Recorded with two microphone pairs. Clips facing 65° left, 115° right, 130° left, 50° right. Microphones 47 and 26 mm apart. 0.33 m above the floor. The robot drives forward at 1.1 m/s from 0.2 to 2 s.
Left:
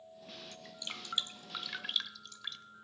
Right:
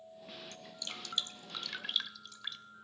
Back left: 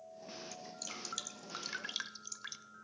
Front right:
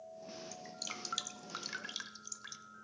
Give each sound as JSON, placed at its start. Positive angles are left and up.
{"t": 0.5, "sound": "dripping", "azimuth_deg": 5, "distance_m": 1.5}